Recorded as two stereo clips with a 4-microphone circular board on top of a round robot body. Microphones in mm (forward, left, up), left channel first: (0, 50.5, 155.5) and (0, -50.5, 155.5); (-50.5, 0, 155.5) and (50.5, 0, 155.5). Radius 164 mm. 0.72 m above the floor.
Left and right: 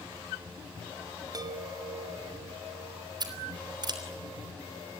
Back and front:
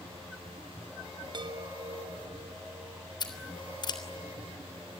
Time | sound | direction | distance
1.3 | a chime | 40° right | 2 m
3.2 | scissors | 135° right | 3.5 m